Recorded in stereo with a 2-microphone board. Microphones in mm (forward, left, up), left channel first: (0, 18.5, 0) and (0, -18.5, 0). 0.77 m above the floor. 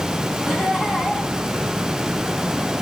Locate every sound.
0.5 s laughter: 5° left (ahead or behind), 8 m